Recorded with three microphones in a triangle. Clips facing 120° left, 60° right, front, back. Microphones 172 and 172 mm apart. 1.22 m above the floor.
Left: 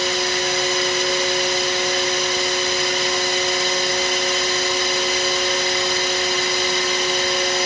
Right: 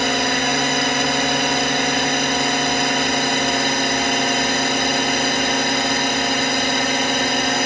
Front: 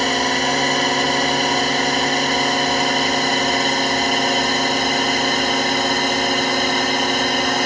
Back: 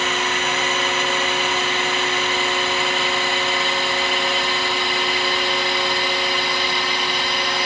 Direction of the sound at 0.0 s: 45° right.